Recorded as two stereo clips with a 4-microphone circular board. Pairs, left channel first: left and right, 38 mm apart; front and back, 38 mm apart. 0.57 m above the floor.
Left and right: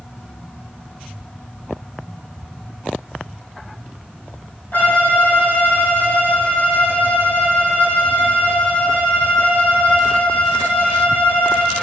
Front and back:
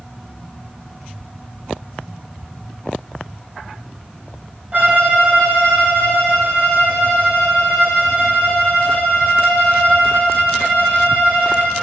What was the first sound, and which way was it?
A violin, 130° left.